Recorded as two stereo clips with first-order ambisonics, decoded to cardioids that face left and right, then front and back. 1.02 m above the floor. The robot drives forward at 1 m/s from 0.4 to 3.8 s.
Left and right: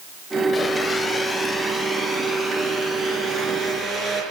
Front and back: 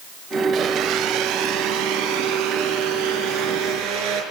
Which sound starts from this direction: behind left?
A blender, at 0.5 s.